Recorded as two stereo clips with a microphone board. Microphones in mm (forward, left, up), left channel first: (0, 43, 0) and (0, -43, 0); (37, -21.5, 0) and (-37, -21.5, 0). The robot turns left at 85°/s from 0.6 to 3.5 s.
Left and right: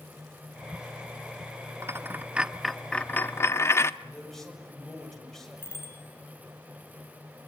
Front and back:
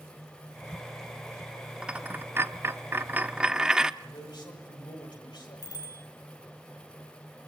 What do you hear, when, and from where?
1.8 s a dropped coin: 110° right, 0.8 m; by 3.9 s 110° left, 0.8 m
4.0 s a man speaking: 5° left, 7 m
5.6 s a bicycle bell: 25° left, 5 m